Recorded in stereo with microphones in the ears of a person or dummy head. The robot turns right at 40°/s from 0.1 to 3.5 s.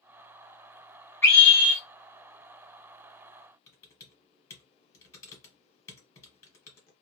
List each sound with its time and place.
1.2 s a scream: 10° left (ahead or behind), 1.1 m; by 1.8 s 15° right (ahead or behind), 1.1 m
3.7 s typing on a keyboard: 20° left (ahead or behind), 0.9 m